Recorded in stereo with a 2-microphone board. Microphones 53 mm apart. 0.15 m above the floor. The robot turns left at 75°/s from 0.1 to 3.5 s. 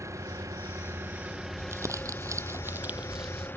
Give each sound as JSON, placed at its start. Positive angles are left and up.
{"t": 0.0, "sound": "an engine running", "azimuth_deg": -65}
{"t": 1.6, "sound": "crumpling", "side_deg": -50}